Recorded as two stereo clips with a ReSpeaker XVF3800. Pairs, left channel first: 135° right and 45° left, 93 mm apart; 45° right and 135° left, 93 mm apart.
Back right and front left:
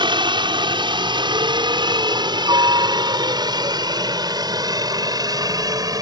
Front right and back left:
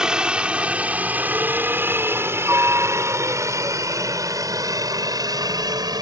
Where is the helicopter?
55° left; by 6.0 s 90° left.